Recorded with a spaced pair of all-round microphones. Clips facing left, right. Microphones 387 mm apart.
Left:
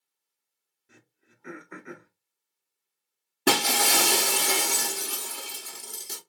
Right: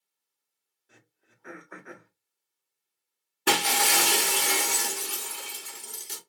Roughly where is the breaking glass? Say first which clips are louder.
Left 3 dB; left.